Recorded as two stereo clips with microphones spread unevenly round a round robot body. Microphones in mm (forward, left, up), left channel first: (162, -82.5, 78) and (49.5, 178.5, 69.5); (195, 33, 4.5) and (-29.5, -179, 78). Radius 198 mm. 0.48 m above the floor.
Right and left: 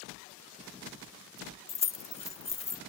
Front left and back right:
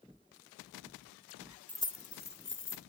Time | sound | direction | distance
1.7 | keys jangling | 10° right | 0.5 m